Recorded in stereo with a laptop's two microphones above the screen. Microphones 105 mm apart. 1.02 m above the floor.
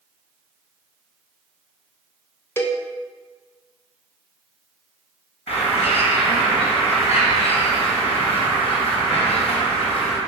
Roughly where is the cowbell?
Left.